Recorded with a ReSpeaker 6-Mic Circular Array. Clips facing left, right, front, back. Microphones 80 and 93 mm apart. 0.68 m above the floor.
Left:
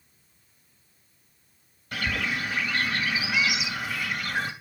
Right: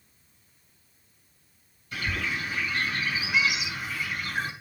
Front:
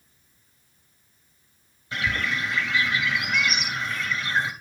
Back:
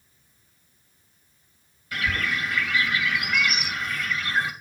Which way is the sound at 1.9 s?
65° left.